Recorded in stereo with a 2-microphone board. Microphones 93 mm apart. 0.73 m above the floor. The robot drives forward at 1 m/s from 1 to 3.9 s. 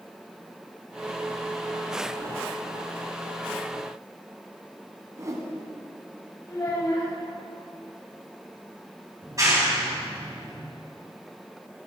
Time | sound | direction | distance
5.2 | a whoosh | 30° right (ahead or behind) | 1.7 m
6.5 | a child speaking | 35° left (ahead or behind) | 3.5 m
9.2 | a clap | 35° right (ahead or behind) | 4 m